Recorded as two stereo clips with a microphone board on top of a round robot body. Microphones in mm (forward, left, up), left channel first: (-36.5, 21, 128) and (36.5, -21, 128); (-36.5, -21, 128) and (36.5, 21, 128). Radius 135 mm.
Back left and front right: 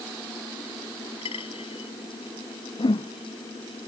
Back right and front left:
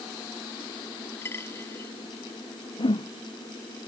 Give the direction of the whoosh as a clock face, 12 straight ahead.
6 o'clock.